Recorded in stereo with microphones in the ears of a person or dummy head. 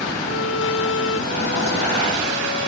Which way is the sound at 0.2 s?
80° left.